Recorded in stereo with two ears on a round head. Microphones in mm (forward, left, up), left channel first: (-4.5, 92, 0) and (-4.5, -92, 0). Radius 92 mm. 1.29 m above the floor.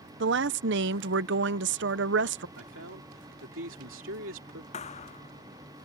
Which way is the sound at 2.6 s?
65° right (ahead or behind).